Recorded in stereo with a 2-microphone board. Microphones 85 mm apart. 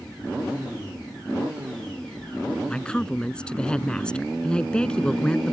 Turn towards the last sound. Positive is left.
turn(degrees=10)  # may be behind; listen again after turning